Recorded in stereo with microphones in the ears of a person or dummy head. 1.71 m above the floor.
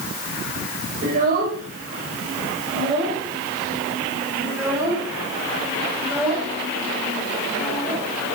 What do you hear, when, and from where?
1.0 s a child speaking: 45° right (ahead or behind), 5.5 m; by 8.0 s 10° left (ahead or behind), 9 m